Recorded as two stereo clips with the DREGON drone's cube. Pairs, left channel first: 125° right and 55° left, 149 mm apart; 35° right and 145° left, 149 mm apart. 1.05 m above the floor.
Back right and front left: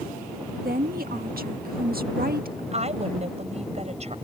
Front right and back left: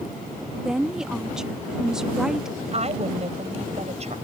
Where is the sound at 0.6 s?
60° left.